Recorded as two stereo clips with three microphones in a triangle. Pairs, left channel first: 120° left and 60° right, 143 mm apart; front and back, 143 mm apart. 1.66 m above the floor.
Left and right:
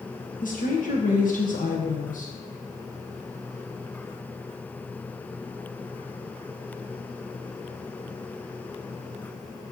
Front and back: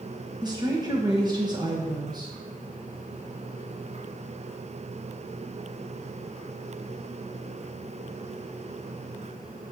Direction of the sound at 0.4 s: 125° left.